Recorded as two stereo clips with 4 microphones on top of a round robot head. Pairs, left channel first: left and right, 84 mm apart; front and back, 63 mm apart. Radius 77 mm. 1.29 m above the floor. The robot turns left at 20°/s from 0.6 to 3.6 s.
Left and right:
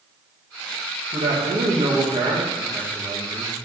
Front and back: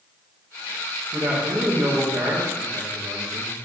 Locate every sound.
1.1 s a man speaking: 115° right, 1.9 m; by 3.5 s 165° right, 1.9 m